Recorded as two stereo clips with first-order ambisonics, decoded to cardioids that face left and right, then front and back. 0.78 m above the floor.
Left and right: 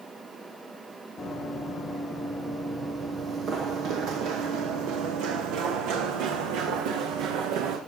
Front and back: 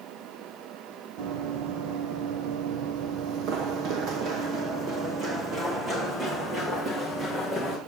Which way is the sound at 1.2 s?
165° left.